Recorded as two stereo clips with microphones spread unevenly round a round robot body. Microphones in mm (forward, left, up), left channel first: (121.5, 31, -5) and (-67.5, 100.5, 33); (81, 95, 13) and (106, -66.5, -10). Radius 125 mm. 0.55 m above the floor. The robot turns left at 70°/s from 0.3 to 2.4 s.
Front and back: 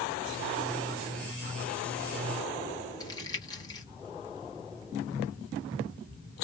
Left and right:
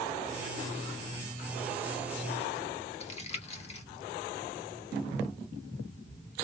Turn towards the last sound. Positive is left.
turn(degrees=45)